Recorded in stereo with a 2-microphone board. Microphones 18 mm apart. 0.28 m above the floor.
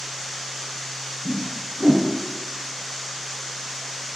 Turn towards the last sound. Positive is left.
turn(degrees=-75)  # may be behind; listen again after turning